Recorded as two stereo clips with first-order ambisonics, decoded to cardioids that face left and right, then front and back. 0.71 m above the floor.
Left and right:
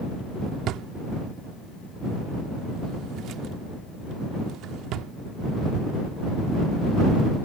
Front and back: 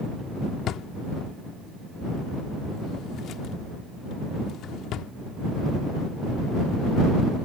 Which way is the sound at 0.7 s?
50° right.